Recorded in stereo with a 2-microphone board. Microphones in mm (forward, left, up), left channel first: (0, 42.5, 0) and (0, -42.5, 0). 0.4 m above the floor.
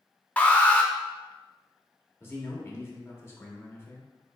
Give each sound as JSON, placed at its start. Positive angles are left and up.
{"t": 0.4, "sound": "an alarm", "side_deg": 15, "distance_m": 0.5}
{"t": 2.2, "sound": "a man speaking", "side_deg": 25, "distance_m": 0.9}